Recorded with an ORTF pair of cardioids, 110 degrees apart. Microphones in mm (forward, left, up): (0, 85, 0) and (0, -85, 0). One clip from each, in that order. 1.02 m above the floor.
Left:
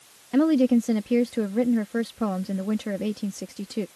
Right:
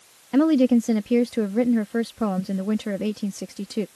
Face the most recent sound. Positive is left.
turn(degrees=-15)